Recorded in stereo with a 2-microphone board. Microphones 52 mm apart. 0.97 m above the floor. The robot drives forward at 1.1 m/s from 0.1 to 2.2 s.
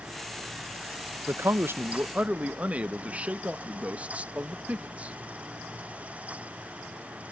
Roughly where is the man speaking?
Right.